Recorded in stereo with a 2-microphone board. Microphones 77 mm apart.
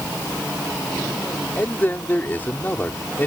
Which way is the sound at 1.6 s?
25° left (ahead or behind).